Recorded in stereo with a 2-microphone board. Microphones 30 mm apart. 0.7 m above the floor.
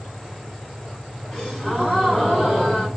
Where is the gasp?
10° left (ahead or behind), 1.5 m.